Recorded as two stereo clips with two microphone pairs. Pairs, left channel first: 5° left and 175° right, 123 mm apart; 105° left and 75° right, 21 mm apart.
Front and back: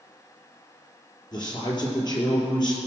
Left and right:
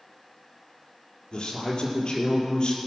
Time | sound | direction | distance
1.3 | a man speaking | 55° left | 4 m